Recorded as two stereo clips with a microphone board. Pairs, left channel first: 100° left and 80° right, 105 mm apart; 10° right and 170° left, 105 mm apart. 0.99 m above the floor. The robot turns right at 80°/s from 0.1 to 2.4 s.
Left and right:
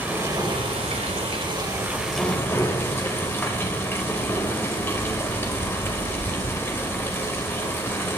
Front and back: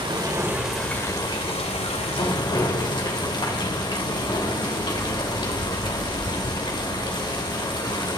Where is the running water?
150° right, 2 m; by 8.2 s 30° left, 2 m.